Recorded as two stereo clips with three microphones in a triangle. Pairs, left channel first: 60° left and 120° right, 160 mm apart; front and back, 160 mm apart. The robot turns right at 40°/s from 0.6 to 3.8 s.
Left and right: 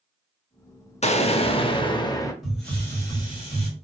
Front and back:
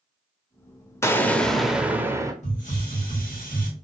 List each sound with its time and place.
1.0 s an explosion: 65° left, 0.6 m; by 2.3 s 120° left, 0.6 m
2.4 s a hiss: 35° right, 1.9 m; by 3.7 s 20° left, 1.9 m